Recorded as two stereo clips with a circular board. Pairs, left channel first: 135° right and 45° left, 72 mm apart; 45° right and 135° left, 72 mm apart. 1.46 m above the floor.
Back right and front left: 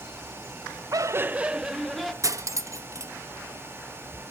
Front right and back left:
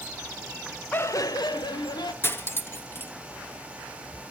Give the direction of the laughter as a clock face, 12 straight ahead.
11 o'clock.